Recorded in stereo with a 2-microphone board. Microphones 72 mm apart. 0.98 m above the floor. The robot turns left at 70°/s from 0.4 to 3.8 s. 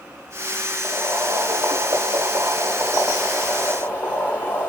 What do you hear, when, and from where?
0.8 s boiling: straight ahead, 1.8 m; by 4.7 s 150° left, 1.8 m